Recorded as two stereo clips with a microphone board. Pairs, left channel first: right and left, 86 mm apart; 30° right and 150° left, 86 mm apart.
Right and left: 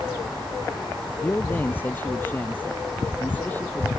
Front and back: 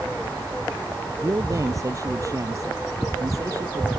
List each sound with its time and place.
1.2 s a man speaking: 160° right